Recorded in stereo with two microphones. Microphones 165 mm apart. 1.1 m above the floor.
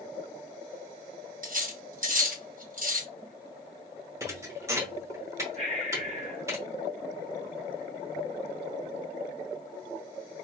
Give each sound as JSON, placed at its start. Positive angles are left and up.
{"t": 1.4, "sound": "cutlery clinking", "side_deg": -60, "distance_m": 0.8}
{"t": 4.2, "sound": "a thud", "side_deg": -20, "distance_m": 0.8}
{"t": 5.6, "sound": "breathing", "side_deg": -40, "distance_m": 1.1}